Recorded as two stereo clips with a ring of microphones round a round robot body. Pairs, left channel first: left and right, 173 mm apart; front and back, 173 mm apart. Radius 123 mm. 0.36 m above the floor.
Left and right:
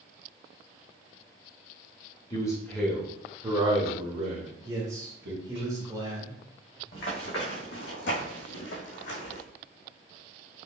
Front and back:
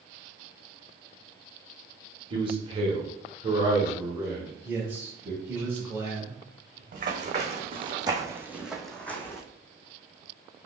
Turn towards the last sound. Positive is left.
turn(degrees=75)